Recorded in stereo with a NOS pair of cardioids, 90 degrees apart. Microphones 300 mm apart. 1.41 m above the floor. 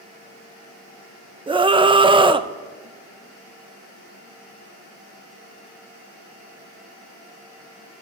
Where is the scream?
15° right, 0.9 m.